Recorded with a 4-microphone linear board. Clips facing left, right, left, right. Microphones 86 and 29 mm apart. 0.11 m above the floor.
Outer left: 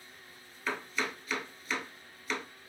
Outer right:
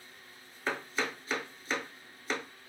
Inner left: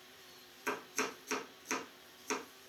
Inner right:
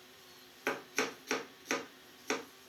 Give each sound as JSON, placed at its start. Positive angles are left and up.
{"t": 0.7, "sound": "chopping", "side_deg": -30, "distance_m": 0.7}